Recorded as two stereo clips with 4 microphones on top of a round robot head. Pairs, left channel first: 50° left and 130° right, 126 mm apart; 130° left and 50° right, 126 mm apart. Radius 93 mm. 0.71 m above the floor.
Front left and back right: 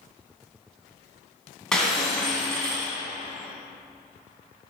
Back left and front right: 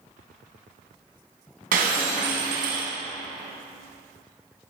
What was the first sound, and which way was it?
Breaking glass, 35° right.